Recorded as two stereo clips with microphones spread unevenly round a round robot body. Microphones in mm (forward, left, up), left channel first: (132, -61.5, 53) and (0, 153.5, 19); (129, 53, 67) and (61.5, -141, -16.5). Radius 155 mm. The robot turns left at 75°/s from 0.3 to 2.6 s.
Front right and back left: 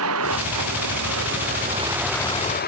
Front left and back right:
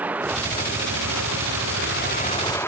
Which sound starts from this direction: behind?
A vehicle, at 0.0 s.